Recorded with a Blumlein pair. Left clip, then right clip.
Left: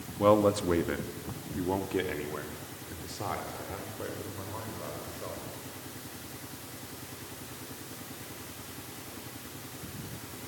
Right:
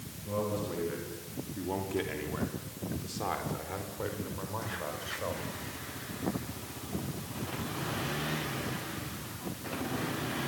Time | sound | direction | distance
0.2 | a man speaking | 45° left | 2.5 m